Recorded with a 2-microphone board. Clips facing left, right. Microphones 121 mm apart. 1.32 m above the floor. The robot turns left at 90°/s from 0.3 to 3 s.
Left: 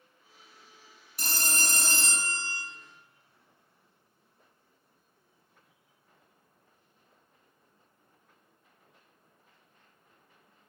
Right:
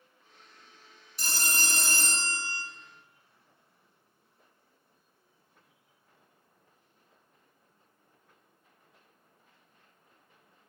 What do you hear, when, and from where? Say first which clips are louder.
1.2 s a phone ringing: even; 95° left, 0.9 m; by 2.6 s 35° right, 0.9 m